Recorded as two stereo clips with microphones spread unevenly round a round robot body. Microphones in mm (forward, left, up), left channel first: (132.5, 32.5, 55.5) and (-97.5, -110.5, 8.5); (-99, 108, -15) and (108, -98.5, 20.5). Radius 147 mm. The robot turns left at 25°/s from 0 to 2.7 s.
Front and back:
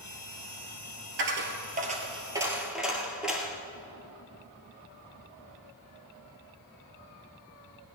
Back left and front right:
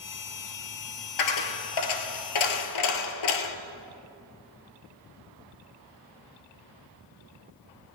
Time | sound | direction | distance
1.2 | a dropped coin | 160° left | 1.2 m